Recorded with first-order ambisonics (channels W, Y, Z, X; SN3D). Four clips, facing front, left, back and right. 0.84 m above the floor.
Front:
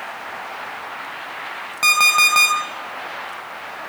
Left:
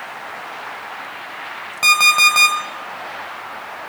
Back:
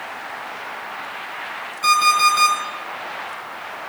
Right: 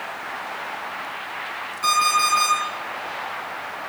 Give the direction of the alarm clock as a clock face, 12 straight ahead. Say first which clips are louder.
Left 7 dB, front 1 dB; 10 o'clock.